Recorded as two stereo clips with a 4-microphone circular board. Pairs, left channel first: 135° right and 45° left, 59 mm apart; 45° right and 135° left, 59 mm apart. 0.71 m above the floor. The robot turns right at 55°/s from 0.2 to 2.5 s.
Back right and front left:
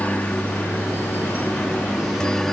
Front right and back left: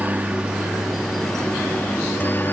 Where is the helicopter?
Straight behind; by 2.5 s 55° right.